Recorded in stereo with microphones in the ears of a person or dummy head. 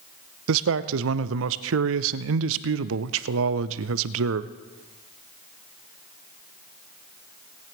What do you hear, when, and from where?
0.5 s a man speaking: 75° right (ahead or behind), 0.6 m